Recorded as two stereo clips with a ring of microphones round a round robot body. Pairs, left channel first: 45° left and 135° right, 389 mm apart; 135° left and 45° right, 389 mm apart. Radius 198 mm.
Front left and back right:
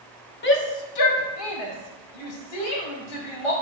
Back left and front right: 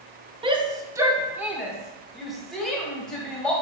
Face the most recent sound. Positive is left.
turn(degrees=45)